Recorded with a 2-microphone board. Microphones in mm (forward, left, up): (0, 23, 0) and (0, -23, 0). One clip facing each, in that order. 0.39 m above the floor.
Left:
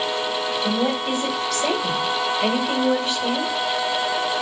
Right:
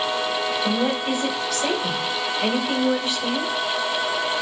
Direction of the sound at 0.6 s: 5° right (ahead or behind).